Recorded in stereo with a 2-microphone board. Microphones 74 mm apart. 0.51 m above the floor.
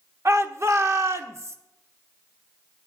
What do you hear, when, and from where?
0.2 s a shout: 45° right (ahead or behind), 1.0 m